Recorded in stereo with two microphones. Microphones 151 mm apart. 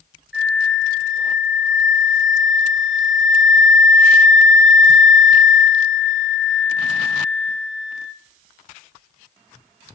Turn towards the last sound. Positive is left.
turn(degrees=0)  # may be behind; listen again after turning